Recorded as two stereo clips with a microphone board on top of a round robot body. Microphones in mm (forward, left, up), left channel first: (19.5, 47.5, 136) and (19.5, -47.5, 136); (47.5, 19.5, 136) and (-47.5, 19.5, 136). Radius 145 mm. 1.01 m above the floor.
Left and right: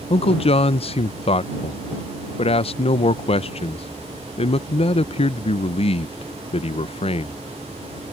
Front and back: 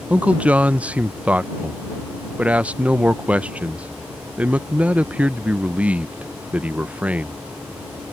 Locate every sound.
0.1 s a man speaking: 105° left